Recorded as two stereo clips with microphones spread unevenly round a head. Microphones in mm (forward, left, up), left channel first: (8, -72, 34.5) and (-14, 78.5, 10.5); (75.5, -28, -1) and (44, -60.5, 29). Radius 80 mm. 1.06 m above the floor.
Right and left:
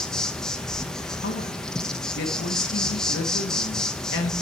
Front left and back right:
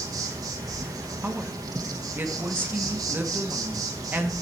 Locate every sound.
0.0 s an insect: 170° right, 0.9 m
1.2 s a woman speaking: 75° right, 2.0 m